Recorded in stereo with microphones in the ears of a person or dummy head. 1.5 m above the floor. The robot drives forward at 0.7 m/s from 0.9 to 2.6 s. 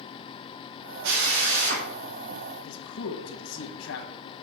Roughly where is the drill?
Right.